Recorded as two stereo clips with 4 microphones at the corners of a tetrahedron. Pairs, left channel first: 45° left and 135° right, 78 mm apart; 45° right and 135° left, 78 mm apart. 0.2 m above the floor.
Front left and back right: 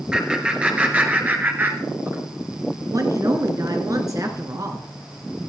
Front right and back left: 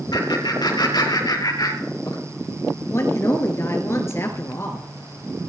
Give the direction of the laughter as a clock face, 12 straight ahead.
2 o'clock.